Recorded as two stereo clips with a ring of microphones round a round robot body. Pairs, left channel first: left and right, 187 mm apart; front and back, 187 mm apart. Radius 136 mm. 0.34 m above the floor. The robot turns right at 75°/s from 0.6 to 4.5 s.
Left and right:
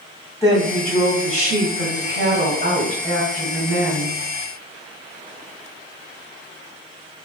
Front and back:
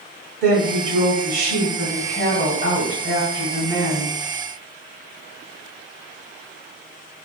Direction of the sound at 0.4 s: 160° left.